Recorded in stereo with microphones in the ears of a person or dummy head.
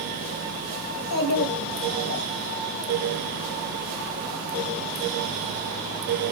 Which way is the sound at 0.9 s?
80° left.